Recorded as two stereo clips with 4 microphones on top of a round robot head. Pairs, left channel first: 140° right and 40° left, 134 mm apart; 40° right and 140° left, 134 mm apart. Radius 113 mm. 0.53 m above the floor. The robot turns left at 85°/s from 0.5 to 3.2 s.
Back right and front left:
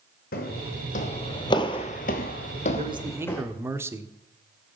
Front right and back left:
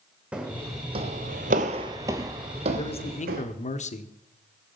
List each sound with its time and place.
0.3 s footsteps: 140° right, 2 m; by 3.4 s 150° left, 2 m
2.8 s a man speaking: 10° left, 1.3 m; by 4.1 s 30° right, 1.3 m